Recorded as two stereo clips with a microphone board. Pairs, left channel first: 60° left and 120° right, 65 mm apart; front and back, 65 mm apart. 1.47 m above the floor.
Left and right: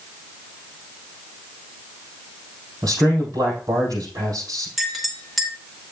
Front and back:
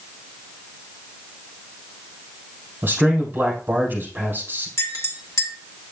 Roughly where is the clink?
Ahead right.